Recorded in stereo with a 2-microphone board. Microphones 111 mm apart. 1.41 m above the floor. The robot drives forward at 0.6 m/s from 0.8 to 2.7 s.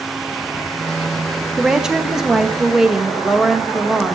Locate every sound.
1.6 s a woman speaking: 5° right (ahead or behind), 1.1 m